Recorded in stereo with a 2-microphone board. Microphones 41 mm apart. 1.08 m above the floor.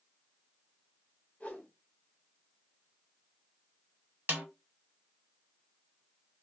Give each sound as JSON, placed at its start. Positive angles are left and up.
{"t": 1.4, "sound": "a whoosh", "side_deg": 35, "distance_m": 1.8}
{"t": 4.3, "sound": "a snare drum", "side_deg": -50, "distance_m": 1.0}